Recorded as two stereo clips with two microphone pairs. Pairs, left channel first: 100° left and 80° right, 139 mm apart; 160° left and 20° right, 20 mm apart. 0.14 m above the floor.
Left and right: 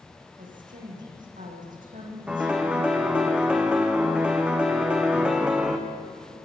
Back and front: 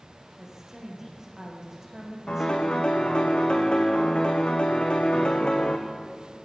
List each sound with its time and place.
0.4 s a woman speaking: 90° right, 7.5 m
2.3 s a piano: 165° right, 2.5 m